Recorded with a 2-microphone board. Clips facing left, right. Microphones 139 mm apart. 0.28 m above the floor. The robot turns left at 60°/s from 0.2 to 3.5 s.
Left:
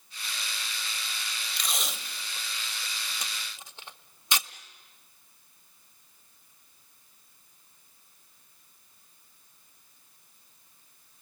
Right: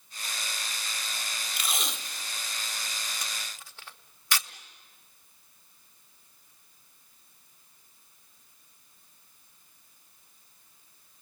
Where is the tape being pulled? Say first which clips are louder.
Right 1 dB; 5° right (ahead or behind), 0.7 m; by 4.5 s 20° left (ahead or behind), 0.7 m.